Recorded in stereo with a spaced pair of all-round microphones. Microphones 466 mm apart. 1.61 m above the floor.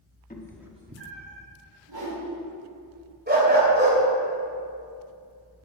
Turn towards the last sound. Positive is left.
turn(degrees=-20)  # may be behind; listen again after turning